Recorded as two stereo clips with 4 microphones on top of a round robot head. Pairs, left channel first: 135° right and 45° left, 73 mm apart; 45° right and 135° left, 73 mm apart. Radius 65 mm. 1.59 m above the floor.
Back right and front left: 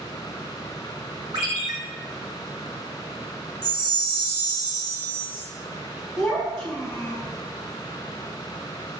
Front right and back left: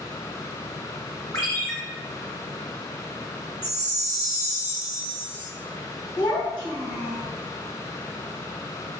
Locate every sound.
1.3 s a ringtone: 10° left, 1.0 m
3.6 s a chime: 65° left, 0.8 m
6.2 s a child speaking: 75° right, 1.1 m